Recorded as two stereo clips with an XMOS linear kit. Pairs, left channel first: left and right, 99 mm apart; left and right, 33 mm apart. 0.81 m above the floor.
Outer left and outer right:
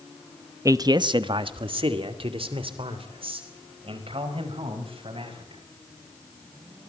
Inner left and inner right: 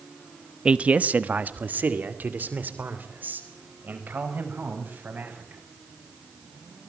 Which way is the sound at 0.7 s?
35° right (ahead or behind).